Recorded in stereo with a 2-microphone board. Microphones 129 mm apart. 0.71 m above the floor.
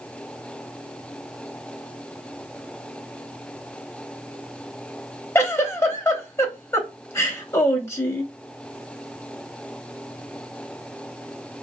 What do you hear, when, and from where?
5.3 s a giggle: 20° left (ahead or behind), 0.6 m